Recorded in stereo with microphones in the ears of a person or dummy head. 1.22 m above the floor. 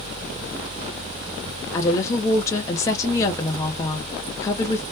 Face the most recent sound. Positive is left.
turn(degrees=20)  # may be behind; listen again after turning